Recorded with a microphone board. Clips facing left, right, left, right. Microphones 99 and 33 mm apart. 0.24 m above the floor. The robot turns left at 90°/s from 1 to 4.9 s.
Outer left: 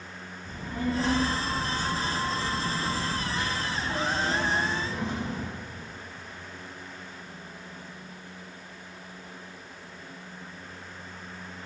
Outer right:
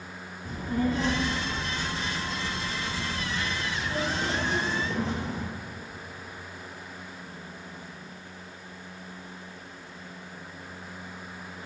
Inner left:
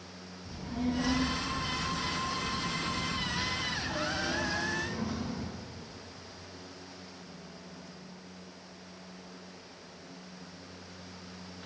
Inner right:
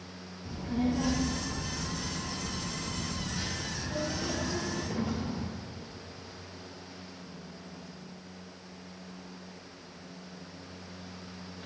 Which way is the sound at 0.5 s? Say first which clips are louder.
Outer right 4 dB, inner right 3 dB; 60° right (ahead or behind).